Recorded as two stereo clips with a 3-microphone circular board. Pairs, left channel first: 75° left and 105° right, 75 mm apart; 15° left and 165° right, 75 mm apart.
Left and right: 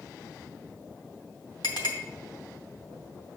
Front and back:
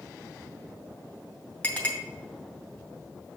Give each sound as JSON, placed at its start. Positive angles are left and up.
{"t": 1.6, "sound": "a clink", "azimuth_deg": 85, "distance_m": 2.5}